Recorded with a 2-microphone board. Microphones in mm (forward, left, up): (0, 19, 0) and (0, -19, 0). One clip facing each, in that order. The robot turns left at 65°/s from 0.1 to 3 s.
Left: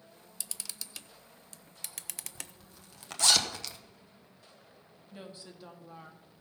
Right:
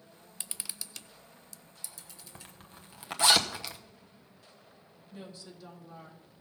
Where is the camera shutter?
35° right (ahead or behind), 0.5 m; by 2.5 s 75° left (ahead or behind), 0.5 m.